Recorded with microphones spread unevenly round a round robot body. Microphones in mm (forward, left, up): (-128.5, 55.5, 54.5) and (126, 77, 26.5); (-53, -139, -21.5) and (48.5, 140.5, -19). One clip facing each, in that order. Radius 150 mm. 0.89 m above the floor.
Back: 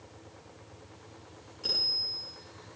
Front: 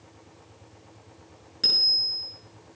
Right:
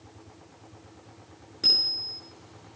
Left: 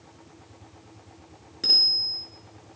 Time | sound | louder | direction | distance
1.6 | a bicycle bell | front 1 dB, even | 20° right | 10 m